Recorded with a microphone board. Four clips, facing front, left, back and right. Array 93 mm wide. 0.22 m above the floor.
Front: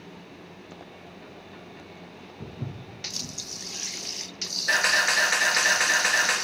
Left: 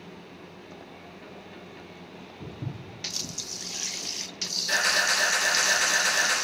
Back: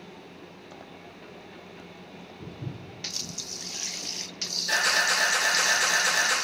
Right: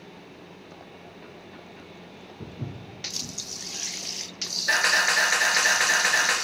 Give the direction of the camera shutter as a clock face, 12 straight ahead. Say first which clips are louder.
Right 3 dB, front 2 dB; 2 o'clock.